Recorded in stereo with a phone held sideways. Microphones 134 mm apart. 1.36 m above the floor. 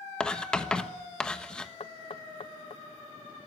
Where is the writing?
5° left (ahead or behind), 1.3 m.